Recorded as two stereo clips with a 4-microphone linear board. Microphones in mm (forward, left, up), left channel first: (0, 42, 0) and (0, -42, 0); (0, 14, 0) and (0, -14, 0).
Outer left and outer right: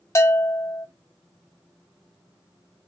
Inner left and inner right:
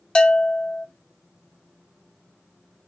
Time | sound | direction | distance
0.1 | a bell | 30° left (ahead or behind) | 0.6 m